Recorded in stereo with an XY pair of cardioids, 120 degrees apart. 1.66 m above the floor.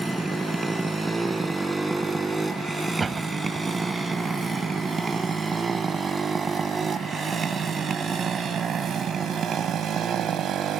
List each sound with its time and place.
0.0 s a motorcycle: 15° right; by 10.8 s 60° right
3.0 s a door slam: 30° right